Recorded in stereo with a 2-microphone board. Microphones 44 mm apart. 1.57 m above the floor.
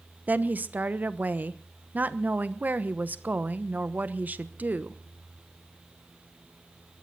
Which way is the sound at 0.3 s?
40° right (ahead or behind).